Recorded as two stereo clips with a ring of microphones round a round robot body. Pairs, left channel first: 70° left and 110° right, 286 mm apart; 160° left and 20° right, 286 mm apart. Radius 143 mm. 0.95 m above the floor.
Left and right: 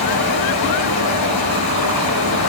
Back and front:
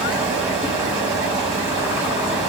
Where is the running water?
60° left, 4 m.